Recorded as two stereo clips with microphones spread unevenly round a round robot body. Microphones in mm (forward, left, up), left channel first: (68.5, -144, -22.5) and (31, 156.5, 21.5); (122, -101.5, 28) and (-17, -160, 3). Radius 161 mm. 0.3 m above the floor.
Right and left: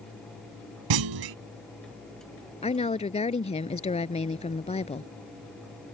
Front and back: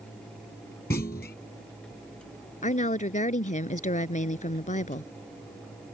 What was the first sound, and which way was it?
A clunk, 85° left.